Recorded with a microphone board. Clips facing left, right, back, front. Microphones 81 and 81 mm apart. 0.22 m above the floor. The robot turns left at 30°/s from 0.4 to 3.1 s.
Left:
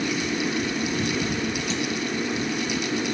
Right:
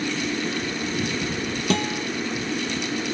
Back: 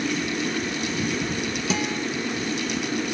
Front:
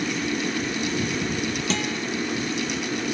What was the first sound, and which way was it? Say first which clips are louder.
A guitar: right 3 dB, back 1 dB; 100° right.